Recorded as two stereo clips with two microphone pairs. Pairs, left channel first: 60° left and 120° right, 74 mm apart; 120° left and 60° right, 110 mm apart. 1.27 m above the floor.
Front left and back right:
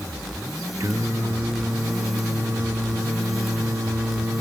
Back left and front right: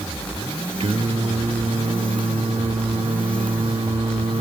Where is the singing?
75° right, 1.8 m.